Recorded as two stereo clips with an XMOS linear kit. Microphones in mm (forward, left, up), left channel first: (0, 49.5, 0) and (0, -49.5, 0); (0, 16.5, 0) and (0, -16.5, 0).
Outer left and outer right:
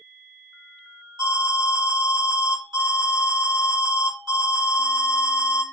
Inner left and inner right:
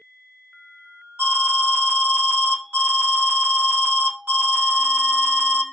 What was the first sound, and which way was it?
An alarm, 50° right (ahead or behind).